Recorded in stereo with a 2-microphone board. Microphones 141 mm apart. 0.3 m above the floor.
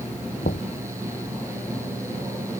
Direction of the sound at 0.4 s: 85° left.